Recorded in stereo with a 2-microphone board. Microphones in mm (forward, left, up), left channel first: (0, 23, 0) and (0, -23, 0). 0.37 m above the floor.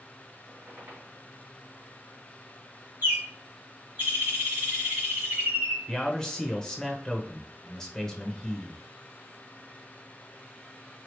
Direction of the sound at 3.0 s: 45° right (ahead or behind).